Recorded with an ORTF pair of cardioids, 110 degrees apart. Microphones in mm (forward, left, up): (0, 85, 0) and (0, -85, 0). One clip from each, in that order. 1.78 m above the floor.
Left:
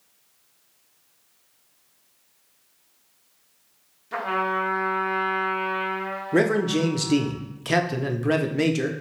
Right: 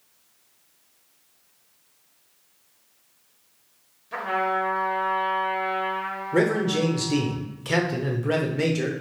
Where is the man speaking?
20° left, 0.5 m.